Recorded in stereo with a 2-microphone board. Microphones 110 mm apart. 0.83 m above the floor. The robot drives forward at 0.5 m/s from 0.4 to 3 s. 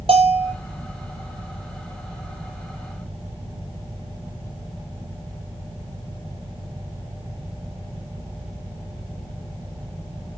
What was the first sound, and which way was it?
A bell, 60° right (ahead or behind).